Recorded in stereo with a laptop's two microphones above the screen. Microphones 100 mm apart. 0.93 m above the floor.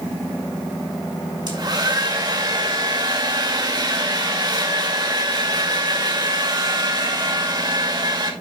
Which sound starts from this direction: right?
A hair dryer, at 1.5 s.